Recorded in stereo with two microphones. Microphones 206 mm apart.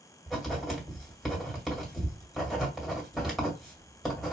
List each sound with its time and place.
0.3 s writing: centre (ahead or behind), 1.8 m